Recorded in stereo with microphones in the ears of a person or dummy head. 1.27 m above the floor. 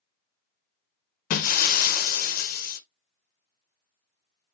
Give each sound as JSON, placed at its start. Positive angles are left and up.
{"t": 1.3, "sound": "breaking glass", "side_deg": 50, "distance_m": 0.6}